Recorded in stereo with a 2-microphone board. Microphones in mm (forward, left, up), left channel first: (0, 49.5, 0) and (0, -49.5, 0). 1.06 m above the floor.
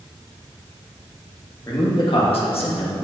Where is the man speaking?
40° left (ahead or behind), 1.6 m; by 3.0 s 65° left (ahead or behind), 1.5 m.